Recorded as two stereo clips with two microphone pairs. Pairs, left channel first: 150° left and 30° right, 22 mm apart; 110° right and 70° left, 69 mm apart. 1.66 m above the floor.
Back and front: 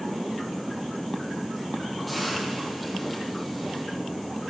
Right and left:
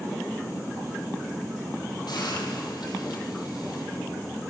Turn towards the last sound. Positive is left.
turn(degrees=-120)